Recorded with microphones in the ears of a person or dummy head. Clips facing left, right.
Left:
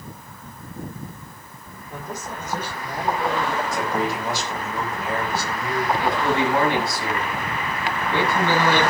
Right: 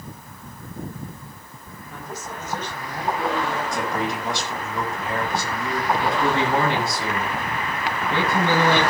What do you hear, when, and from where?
1.9 s a man speaking: 15° left (ahead or behind), 4.5 m; by 3.6 s 10° left (ahead or behind), 3 m
3.7 s a man speaking: centre (ahead or behind), 7 m
6.0 s a man speaking: 20° right (ahead or behind), 8 m